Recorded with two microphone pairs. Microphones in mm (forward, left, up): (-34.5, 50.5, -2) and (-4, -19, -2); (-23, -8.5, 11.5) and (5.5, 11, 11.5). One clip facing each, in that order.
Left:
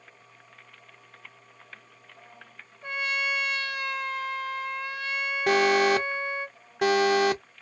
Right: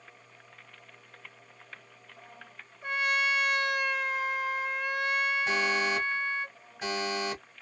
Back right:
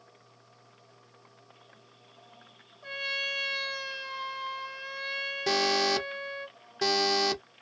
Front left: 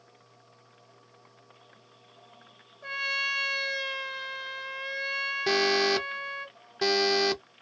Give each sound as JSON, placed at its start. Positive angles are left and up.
{"t": 2.8, "sound": "a trumpet", "azimuth_deg": 10, "distance_m": 1.7}
{"t": 5.5, "sound": "an alarm", "azimuth_deg": 115, "distance_m": 0.6}